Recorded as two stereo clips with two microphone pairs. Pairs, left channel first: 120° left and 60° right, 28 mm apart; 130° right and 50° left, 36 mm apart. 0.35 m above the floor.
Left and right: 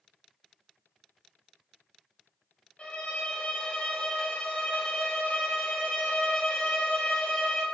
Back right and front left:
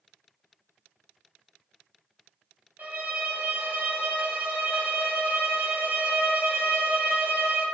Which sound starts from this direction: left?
A violin, at 2.8 s.